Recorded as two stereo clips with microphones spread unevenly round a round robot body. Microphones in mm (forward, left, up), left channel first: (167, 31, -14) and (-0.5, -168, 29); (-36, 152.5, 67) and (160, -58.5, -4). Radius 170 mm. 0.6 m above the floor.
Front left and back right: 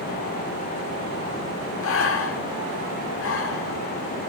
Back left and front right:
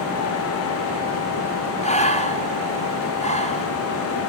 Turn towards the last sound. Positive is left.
turn(degrees=60)